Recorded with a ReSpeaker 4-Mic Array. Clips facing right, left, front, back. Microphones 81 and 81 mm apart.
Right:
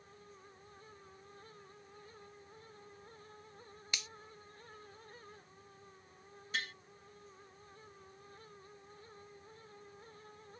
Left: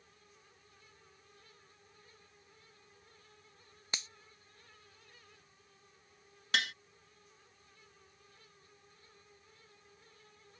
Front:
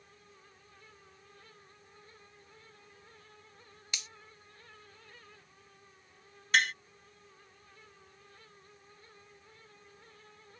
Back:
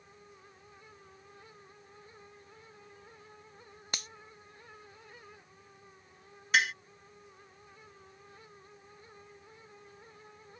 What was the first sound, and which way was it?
A finger snap, 145° left.